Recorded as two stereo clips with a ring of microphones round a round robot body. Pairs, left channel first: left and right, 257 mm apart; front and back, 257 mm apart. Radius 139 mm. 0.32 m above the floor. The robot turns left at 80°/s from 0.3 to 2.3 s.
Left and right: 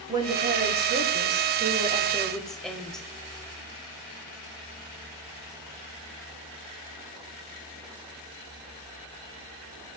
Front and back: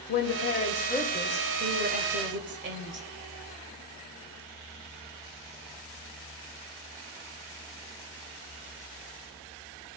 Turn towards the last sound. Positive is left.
turn(degrees=180)